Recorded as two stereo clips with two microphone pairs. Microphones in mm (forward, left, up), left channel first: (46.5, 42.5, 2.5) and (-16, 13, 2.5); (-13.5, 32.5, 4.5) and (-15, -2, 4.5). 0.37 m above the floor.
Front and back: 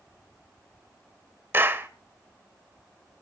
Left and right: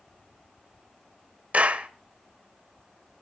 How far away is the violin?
I don't hear a violin.